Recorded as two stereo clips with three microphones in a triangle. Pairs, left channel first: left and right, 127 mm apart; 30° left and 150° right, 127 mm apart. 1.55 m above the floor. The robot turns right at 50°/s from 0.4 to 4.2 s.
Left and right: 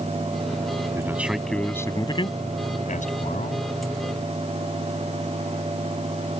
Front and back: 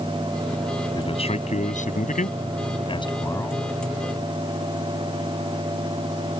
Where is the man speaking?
25° right; by 3.7 s 115° left.